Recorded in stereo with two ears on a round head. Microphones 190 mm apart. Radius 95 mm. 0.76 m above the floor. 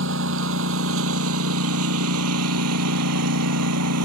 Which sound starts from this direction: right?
A lawn mower, at 0.0 s.